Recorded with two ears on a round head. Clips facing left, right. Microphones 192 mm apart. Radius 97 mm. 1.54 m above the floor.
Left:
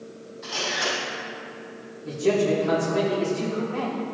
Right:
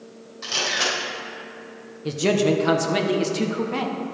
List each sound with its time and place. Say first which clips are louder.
0.4 s a camera shutter: right 1 dB; 75° right (ahead or behind), 3.5 m
2.0 s a man speaking: right 1 dB; 85° right, 1.2 m